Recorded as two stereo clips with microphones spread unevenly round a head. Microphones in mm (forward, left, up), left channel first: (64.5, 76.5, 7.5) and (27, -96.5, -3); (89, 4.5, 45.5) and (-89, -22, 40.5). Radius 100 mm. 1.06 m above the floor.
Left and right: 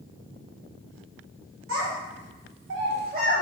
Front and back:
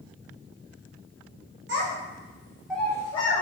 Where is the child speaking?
140° right, 0.8 m; by 3.4 s 45° right, 0.7 m.